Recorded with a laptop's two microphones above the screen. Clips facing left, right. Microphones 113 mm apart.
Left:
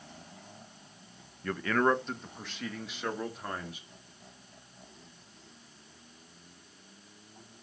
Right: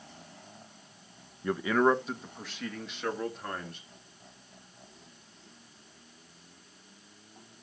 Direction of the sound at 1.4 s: 20° right (ahead or behind).